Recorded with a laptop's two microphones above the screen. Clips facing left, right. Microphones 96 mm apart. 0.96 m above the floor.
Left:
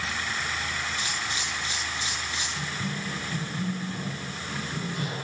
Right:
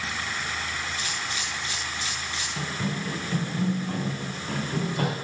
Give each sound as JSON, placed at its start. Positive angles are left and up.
{"t": 1.0, "sound": "a camera shutter", "side_deg": 25, "distance_m": 10.0}
{"t": 2.6, "sound": "running footsteps", "side_deg": -45, "distance_m": 4.0}